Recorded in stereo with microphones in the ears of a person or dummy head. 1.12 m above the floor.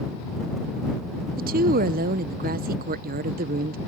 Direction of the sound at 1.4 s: 40° right (ahead or behind).